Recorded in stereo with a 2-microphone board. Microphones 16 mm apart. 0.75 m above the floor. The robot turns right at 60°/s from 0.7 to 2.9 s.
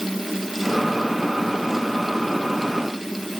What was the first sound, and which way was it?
Only background noise.